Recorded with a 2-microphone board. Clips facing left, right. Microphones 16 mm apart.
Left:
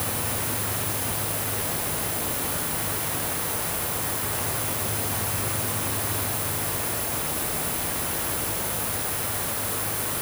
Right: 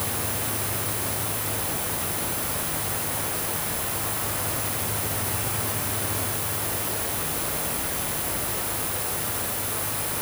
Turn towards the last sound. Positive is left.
No sound to turn to.